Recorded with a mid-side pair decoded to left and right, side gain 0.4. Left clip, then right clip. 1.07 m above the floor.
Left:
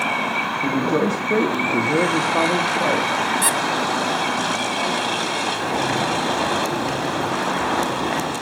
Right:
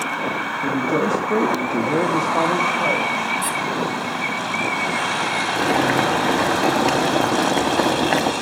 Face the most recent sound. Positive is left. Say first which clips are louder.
# right 3 dB
turn(degrees=-60)